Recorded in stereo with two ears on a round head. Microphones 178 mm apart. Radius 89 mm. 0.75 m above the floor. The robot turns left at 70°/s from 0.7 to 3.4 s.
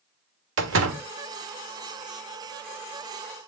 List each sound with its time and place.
0.6 s a door slam: 65° right (ahead or behind), 1.5 m; by 1.0 s 80° right, 1.5 m